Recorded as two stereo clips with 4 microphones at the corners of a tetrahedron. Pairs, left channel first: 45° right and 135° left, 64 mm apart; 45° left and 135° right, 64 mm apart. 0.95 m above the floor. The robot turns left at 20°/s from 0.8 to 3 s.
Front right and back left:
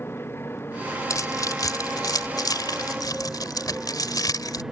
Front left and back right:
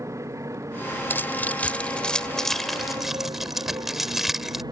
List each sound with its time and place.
0.0 s a motorcycle: 100° right; by 4.7 s 140° right
1.1 s keys jangling: 15° right; by 4.6 s 50° right